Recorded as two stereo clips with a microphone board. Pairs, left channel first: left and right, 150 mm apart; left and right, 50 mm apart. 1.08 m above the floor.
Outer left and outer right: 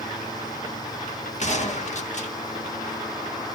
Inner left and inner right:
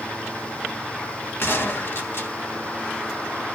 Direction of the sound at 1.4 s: 50° left (ahead or behind).